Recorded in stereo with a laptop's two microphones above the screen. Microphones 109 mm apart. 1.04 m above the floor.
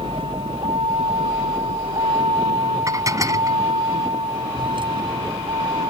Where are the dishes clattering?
35° right (ahead or behind).